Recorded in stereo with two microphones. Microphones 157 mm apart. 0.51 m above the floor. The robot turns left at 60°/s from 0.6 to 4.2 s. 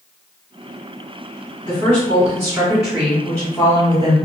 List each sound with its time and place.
1.6 s a woman speaking: 100° right, 1.5 m; by 4.2 s 110° left, 1.5 m